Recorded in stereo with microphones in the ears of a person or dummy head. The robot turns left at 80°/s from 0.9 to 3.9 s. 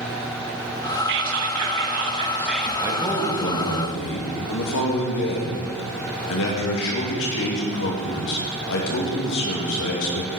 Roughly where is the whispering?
Ahead right.